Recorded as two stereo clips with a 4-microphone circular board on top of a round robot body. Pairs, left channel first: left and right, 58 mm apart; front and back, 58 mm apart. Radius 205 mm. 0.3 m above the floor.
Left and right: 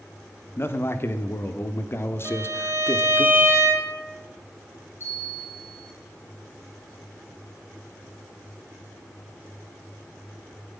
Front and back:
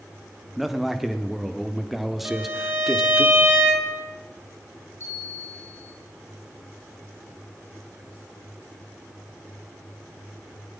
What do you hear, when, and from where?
0.6 s a man speaking: 95° left, 1.5 m
2.2 s a violin: 135° right, 3 m
5.0 s a bell: 40° left, 7.5 m